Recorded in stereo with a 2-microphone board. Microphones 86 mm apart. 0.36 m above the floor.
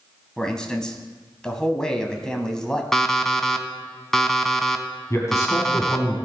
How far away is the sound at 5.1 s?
About 3 m.